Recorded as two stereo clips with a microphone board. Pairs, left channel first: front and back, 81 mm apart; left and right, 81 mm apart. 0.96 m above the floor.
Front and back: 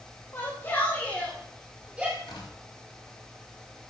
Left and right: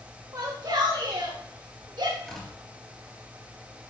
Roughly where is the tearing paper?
Ahead.